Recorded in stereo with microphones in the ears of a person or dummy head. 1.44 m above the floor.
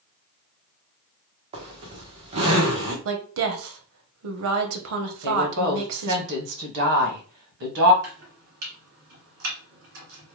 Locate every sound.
1.5 s a zipper: 30° right (ahead or behind), 1.0 m
3.0 s a woman speaking: 70° right (ahead or behind), 0.8 m
5.2 s a woman speaking: 55° right (ahead or behind), 1.3 m
8.0 s chopping: 55° right (ahead or behind), 1.6 m